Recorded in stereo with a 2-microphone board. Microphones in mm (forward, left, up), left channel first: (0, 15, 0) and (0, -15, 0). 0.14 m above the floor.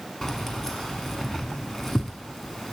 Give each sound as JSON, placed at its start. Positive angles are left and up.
{"t": 0.2, "sound": "keys jangling", "side_deg": 10, "distance_m": 0.7}